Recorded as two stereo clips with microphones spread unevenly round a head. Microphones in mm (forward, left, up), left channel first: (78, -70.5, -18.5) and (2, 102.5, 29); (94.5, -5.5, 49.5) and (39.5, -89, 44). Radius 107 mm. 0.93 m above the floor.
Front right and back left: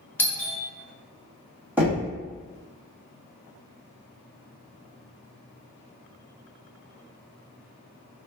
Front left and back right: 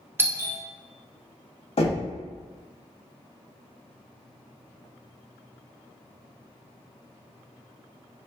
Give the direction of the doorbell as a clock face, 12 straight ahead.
3 o'clock.